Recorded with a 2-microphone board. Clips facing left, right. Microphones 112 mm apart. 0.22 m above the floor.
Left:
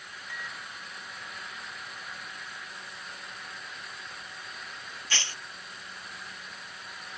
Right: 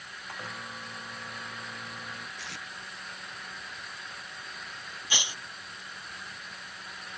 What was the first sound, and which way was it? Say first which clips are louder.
A microwave: right 2 dB; 45° right (ahead or behind).